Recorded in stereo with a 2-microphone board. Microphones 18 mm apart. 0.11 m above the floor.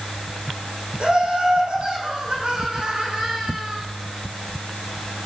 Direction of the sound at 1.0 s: 75° right (ahead or behind).